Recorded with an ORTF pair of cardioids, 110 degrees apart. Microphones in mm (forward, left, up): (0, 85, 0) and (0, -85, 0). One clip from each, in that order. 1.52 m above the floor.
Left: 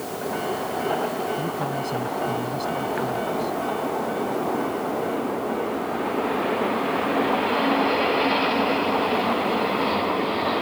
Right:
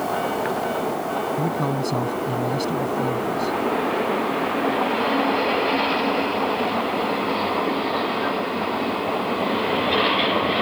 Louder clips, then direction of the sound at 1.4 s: Right 3 dB; 45° right.